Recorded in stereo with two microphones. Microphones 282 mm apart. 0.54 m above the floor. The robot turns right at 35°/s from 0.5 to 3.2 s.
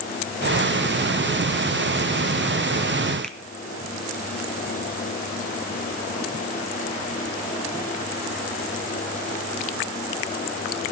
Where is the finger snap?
5° left (ahead or behind), 0.6 m.